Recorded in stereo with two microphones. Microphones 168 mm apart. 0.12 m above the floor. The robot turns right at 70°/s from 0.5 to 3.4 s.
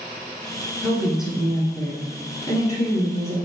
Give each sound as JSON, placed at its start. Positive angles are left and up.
{"t": 0.8, "sound": "a woman speaking", "side_deg": -10, "distance_m": 1.2}